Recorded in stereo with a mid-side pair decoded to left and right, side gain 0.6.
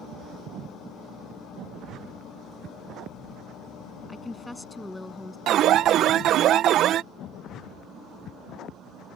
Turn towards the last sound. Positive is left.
turn(degrees=-55)